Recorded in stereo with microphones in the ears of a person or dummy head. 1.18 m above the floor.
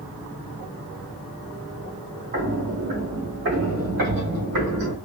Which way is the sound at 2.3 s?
50° right (ahead or behind).